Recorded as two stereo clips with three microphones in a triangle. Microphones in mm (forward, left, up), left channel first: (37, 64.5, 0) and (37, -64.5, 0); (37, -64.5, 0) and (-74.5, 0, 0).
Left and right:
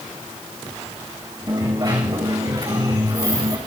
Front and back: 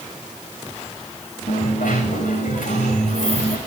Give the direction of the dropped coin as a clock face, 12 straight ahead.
1 o'clock.